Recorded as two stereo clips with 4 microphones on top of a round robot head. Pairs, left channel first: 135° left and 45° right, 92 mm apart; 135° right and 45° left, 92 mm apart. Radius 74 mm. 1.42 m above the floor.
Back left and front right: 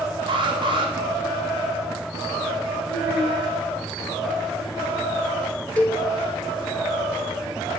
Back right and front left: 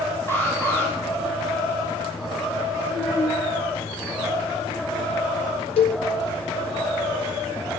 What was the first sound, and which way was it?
An alarm, 70° right.